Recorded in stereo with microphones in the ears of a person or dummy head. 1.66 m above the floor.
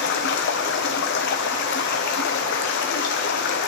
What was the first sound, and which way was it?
Running water, 60° left (ahead or behind).